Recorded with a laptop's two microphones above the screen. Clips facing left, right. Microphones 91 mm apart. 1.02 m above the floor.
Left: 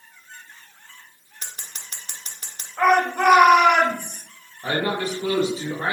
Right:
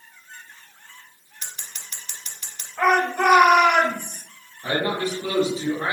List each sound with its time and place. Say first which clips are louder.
1.4 s scissors: even; 40° left (ahead or behind), 0.6 m
2.8 s a shout: left 1 dB; 50° left (ahead or behind), 1.4 m
4.6 s a man speaking: even; 45° left (ahead or behind), 1.0 m